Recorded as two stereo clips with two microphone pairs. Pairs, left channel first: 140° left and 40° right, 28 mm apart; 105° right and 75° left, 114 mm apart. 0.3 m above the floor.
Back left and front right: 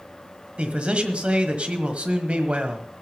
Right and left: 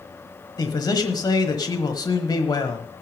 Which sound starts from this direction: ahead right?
A man speaking, at 0.6 s.